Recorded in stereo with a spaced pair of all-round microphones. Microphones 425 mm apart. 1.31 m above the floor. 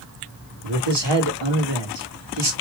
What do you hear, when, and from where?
0.6 s a man speaking: 75° right (ahead or behind), 1.8 m